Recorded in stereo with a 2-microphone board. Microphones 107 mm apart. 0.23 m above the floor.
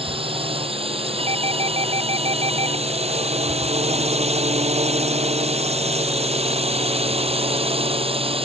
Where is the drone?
60° right (ahead or behind).